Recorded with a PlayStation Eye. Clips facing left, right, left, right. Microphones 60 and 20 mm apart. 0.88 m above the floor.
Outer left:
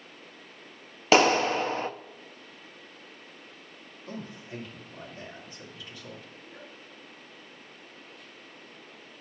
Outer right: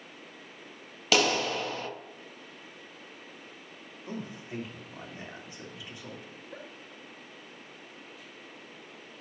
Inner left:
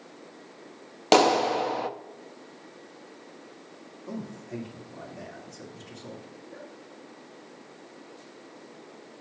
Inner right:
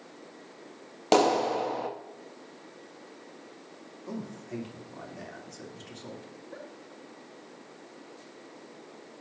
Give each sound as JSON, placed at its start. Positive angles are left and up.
{"t": 1.1, "sound": "a clap", "side_deg": 30, "distance_m": 0.5}
{"t": 4.1, "sound": "a man speaking", "side_deg": -20, "distance_m": 2.5}
{"t": 6.3, "sound": "a giggle", "side_deg": -85, "distance_m": 2.5}